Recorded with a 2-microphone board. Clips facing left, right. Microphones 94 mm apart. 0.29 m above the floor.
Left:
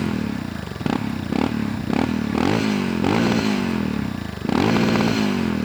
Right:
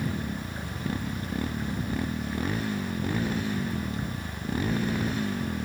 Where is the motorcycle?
85° left; by 5.7 s 80° left.